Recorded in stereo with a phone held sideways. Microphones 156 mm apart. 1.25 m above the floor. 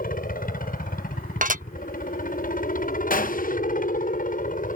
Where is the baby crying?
I don't hear a baby crying.